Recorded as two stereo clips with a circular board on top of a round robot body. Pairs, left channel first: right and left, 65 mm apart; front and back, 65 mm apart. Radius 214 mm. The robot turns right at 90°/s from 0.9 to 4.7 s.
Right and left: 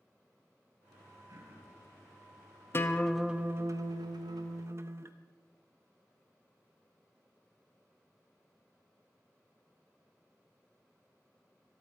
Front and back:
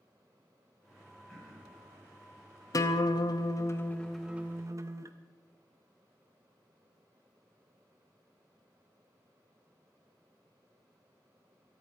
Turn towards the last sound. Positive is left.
turn(degrees=140)